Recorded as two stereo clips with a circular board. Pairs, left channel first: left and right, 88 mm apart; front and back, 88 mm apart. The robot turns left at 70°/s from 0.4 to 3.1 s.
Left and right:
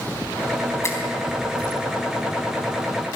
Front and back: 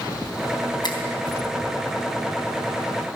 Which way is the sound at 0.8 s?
30° left.